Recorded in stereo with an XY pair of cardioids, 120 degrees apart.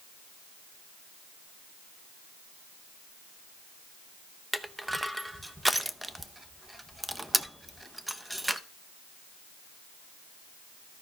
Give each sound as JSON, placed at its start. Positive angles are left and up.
{"t": 4.5, "sound": "crushing", "azimuth_deg": -5, "distance_m": 0.7}